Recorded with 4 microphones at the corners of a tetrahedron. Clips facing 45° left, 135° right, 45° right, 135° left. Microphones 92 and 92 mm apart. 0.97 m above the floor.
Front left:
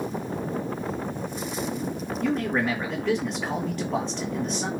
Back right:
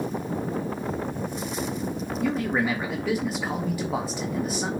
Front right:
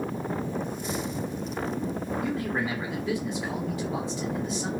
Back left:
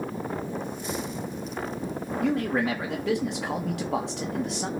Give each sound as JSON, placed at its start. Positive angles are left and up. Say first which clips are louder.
{"t": 2.2, "sound": "a man speaking", "louder": "even, back left 6 dB", "azimuth_deg": 140, "distance_m": 1.7}